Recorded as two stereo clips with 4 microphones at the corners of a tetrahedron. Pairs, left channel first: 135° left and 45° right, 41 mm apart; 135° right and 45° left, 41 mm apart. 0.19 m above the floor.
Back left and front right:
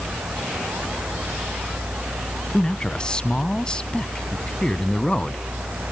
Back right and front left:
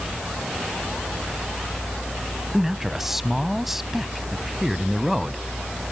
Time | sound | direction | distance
2.5 | a man speaking | 115° left | 1.1 m